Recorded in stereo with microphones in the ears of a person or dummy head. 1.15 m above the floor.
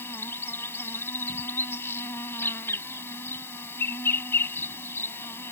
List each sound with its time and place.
0.0 s an insect: 15° left (ahead or behind)